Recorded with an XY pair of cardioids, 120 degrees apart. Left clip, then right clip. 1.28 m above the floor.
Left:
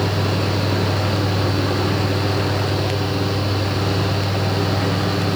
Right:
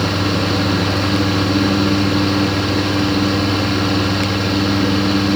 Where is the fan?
40° right, 3.5 m.